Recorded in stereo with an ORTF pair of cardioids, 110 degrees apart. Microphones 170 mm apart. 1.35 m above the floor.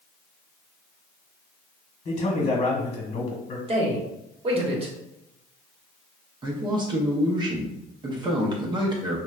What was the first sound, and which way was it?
A man speaking, 45° left.